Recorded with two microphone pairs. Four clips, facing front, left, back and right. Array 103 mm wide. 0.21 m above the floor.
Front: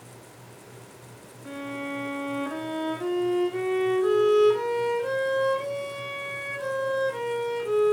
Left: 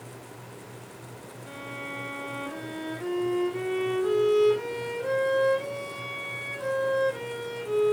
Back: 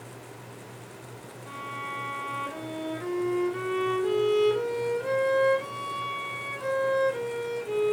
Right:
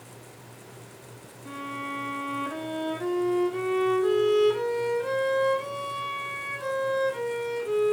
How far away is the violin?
About 2.5 m.